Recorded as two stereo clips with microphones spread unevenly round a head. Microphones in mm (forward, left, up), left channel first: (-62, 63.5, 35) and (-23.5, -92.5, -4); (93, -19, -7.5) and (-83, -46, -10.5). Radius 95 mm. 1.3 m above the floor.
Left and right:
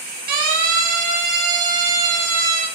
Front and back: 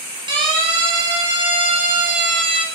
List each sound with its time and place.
0.3 s a siren: 105° right, 9.5 m; by 2.6 s 110° right, 7 m